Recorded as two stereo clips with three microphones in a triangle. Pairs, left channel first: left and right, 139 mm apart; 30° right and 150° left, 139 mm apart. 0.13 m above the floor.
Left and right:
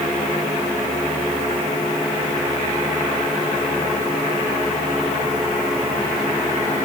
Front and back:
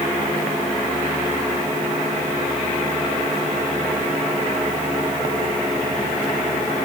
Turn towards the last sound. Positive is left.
No sound to turn to.